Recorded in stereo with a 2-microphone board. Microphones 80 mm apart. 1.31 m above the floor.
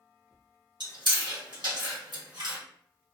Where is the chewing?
70° right (ahead or behind), 1.2 m.